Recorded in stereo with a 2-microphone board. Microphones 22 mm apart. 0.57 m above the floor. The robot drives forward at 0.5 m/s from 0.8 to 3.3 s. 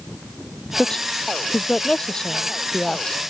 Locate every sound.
0.8 s a woman speaking: 35° left (ahead or behind)